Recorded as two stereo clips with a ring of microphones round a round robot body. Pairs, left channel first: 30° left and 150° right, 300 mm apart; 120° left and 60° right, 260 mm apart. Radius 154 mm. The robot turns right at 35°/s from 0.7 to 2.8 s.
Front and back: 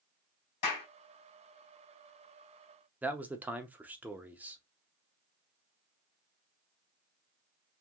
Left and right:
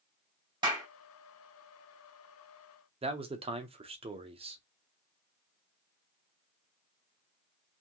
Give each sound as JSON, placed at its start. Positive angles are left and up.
{"t": 0.6, "sound": "a clap", "azimuth_deg": 15, "distance_m": 2.5}
{"t": 3.0, "sound": "a man speaking", "azimuth_deg": -75, "distance_m": 0.7}